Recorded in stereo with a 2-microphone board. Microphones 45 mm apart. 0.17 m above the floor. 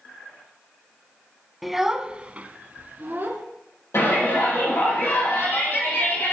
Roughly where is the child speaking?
Centre.